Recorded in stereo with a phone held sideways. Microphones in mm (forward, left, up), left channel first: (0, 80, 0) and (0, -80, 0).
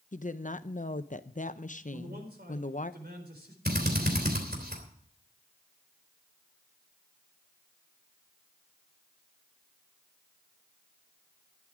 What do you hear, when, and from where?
0.1 s a woman speaking: 55° left (ahead or behind), 0.7 m
1.9 s a man speaking: 85° right, 4 m
3.6 s a drill: 75° right (ahead or behind), 3 m